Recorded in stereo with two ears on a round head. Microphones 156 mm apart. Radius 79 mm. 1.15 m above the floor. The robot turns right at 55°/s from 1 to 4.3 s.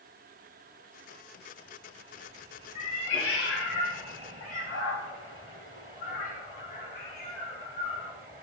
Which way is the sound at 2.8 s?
40° left (ahead or behind).